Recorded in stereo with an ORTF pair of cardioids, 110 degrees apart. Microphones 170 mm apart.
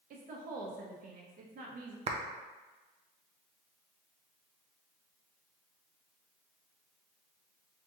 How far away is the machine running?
No machine running in this recording.